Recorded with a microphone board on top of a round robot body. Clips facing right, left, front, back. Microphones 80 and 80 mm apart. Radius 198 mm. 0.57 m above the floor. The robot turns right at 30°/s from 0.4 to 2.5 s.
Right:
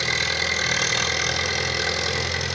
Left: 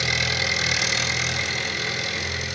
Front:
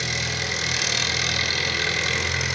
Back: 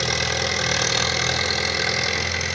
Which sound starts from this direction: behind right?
An engine running, at 0.0 s.